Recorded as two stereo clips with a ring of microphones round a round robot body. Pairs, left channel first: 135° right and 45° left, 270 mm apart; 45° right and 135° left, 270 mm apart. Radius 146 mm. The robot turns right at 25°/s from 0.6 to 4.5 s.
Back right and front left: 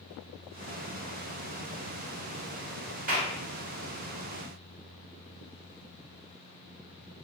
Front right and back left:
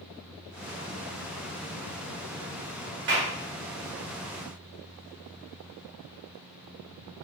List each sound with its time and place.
3.1 s a clap: 100° left, 1.7 m; by 3.3 s 105° left, 1.7 m